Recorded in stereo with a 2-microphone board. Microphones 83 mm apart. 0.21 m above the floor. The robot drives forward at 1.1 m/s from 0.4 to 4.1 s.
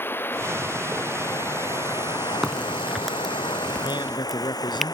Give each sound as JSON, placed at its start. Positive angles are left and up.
{"t": 0.0, "sound": "running water", "side_deg": 25}
{"t": 2.4, "sound": "a crack", "side_deg": 0}
{"t": 3.8, "sound": "a man speaking", "side_deg": 65}